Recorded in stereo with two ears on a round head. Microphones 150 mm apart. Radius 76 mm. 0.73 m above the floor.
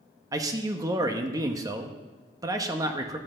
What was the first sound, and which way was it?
A man speaking, 20° right (ahead or behind).